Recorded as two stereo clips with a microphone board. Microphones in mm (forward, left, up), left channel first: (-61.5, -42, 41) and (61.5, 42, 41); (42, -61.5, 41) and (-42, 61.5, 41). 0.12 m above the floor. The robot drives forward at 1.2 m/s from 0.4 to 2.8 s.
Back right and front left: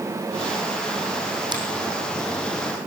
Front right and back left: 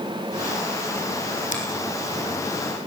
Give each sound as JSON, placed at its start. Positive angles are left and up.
{"t": 1.5, "sound": "a finger snap", "azimuth_deg": -25, "distance_m": 5.0}